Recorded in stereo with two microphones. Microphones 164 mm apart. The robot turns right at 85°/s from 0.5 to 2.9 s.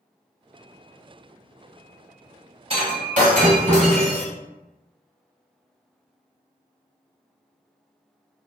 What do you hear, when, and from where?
2.7 s breaking glass: 40° right (ahead or behind), 1.7 m; by 4.2 s 50° right (ahead or behind), 1.7 m